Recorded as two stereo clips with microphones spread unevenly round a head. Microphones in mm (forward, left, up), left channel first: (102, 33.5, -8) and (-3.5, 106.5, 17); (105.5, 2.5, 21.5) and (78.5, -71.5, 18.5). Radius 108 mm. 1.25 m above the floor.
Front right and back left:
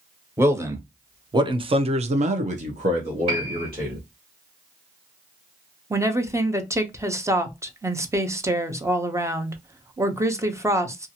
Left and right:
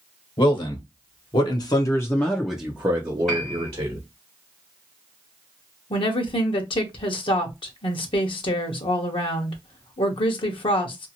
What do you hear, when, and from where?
0.4 s a man speaking: 75° left, 1.3 m; by 4.0 s 150° right, 1.2 m
3.3 s a piano: 150° left, 1.6 m
5.9 s a woman speaking: 80° left, 0.8 m